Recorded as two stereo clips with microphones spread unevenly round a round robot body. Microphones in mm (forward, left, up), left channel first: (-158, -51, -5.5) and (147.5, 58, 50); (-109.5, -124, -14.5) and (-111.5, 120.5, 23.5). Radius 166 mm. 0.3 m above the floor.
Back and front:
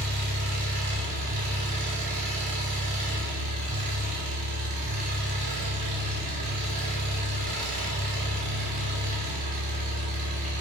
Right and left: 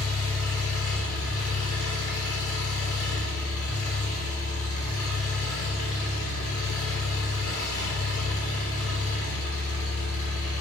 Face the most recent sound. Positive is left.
turn(degrees=-40)